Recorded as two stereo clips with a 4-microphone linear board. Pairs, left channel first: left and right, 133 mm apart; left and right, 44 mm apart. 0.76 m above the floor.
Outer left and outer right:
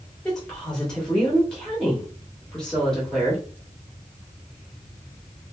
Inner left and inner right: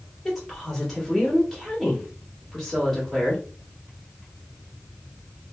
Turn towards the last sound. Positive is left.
turn(degrees=5)  # may be behind; listen again after turning